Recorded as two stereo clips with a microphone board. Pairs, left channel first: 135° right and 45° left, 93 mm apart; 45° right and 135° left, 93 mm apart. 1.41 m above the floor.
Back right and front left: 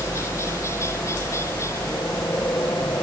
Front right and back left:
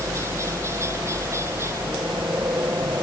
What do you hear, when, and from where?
0.0 s a helicopter: straight behind